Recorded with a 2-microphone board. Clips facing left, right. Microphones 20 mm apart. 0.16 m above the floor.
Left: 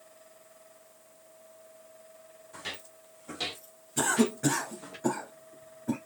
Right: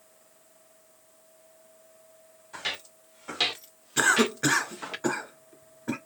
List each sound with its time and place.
2.5 s footsteps: 35° right (ahead or behind), 2 m; by 5.0 s 70° right (ahead or behind), 1.1 m
4.0 s a cough: 45° right (ahead or behind), 2.5 m